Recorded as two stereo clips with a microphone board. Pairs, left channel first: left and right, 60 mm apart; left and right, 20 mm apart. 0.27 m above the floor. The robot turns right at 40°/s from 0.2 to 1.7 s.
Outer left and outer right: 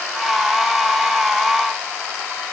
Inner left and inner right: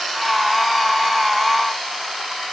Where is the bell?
No bell in this recording.